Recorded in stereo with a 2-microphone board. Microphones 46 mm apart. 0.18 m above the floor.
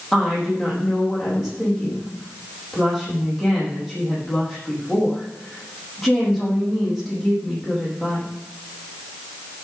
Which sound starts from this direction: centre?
A woman speaking, at 0.1 s.